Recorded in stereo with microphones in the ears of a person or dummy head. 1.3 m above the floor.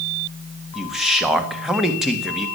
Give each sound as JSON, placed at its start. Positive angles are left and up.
{"t": 0.8, "sound": "a man speaking", "side_deg": -5, "distance_m": 1.8}